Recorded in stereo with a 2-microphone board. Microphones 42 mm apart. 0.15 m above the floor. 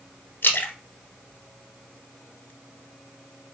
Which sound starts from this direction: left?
A splash, at 0.4 s.